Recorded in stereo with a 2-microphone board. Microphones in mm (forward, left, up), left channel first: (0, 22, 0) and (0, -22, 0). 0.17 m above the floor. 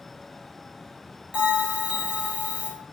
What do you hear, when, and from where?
1.3 s a bell: 25° right (ahead or behind), 3.5 m